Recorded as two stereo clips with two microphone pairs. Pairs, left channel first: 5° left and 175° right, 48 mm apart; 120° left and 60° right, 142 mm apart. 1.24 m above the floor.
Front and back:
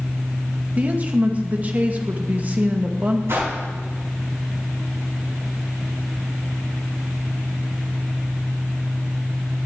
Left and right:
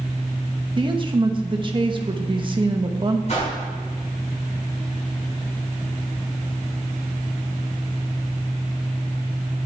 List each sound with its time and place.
0.8 s a woman speaking: 115° right, 1.3 m
3.3 s a whoosh: 160° left, 5 m